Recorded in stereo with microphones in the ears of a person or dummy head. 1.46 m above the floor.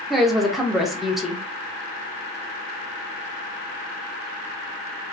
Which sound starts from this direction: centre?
A woman speaking, at 0.1 s.